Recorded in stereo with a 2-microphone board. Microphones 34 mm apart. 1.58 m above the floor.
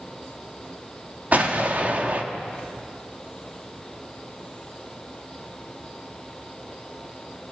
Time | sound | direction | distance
1.3 | an explosion | 45° right (ahead or behind) | 2.0 m